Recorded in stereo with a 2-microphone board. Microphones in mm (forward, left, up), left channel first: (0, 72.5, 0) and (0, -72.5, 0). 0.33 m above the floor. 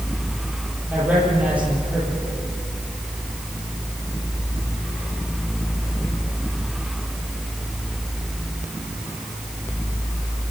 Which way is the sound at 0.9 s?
10° right (ahead or behind).